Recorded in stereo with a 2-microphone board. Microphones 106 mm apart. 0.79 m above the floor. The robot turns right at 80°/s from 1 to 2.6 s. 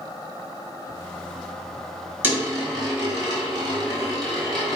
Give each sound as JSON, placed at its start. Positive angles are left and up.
{"t": 2.2, "sound": "a dropped coin", "side_deg": -15, "distance_m": 1.4}